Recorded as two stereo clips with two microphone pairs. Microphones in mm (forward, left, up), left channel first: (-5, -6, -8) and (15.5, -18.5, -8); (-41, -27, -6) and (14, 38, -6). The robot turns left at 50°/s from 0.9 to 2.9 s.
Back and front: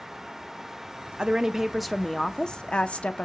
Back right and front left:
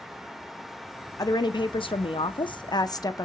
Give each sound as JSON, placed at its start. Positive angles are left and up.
{"t": 1.2, "sound": "a woman speaking", "azimuth_deg": -90, "distance_m": 0.5}